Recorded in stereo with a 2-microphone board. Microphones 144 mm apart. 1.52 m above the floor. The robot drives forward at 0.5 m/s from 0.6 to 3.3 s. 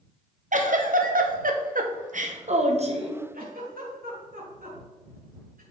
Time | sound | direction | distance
0.5 | a giggle | 60° right (ahead or behind) | 1.0 m
3.3 | a giggle | 85° right | 2.5 m